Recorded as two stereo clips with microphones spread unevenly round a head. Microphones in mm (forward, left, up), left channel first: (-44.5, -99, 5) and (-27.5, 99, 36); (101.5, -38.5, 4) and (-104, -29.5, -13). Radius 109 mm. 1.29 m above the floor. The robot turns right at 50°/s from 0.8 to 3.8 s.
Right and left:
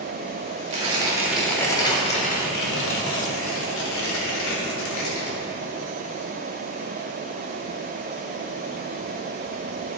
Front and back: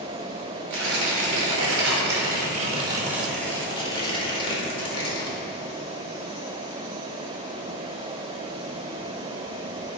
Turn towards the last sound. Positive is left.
turn(degrees=-70)